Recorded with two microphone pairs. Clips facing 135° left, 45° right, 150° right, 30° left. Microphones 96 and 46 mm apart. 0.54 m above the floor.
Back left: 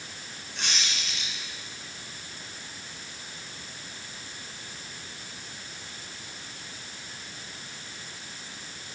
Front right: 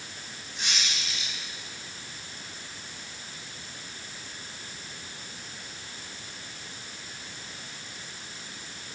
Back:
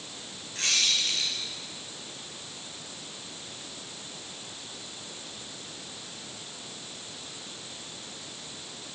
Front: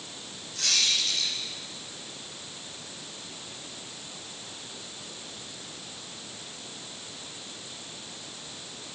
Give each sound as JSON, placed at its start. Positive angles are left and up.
{"t": 0.6, "sound": "a squeak", "azimuth_deg": 160, "distance_m": 5.0}